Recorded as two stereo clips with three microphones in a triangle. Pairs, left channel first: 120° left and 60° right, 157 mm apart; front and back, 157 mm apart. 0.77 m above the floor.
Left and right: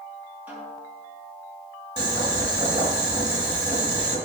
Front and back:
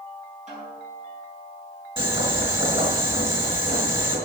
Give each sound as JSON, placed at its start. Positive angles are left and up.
{"t": 0.5, "sound": "a snare drum", "azimuth_deg": -140, "distance_m": 5.5}
{"t": 2.0, "sound": "boiling", "azimuth_deg": -120, "distance_m": 5.0}